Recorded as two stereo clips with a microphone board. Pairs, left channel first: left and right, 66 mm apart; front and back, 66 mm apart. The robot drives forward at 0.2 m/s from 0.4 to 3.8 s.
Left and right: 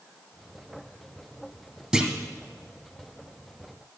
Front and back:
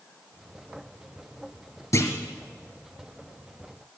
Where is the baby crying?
No baby crying in this recording.